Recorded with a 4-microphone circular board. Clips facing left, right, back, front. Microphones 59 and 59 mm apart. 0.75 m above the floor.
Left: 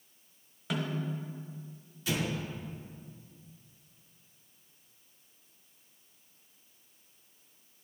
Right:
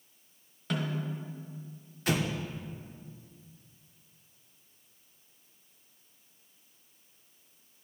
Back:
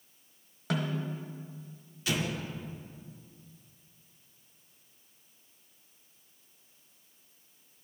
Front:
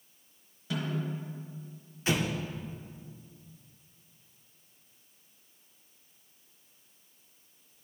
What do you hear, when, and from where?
0.7 s a snare drum: 175° left, 1.1 m
2.1 s an explosion: 60° right, 0.6 m